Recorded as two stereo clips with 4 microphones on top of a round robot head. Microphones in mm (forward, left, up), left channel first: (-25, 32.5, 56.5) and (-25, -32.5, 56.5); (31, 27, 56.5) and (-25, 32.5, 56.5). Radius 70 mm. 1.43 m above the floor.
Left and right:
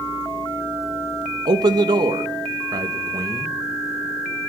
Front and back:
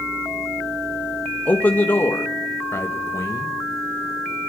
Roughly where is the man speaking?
Right.